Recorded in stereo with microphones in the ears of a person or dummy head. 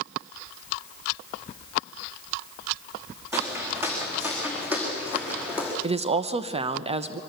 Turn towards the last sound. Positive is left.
turn(degrees=-35)  # may be behind; listen again after turning